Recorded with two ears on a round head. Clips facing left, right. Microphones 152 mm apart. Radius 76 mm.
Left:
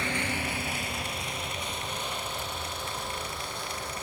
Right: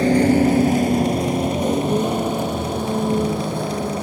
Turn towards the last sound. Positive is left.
turn(degrees=-45)  # may be behind; listen again after turning